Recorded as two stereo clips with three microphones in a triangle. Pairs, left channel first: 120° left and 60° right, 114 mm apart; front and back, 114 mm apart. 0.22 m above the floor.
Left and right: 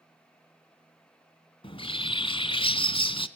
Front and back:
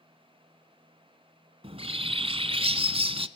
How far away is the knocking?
I don't hear knocking.